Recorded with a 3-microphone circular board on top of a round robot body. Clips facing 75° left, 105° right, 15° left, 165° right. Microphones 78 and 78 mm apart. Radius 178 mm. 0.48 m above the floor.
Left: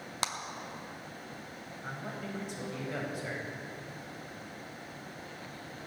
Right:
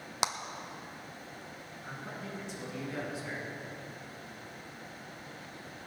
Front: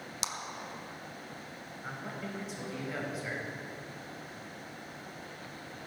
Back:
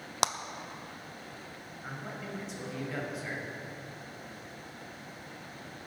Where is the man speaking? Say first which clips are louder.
Left 2 dB, even; 105° left, 4.5 m.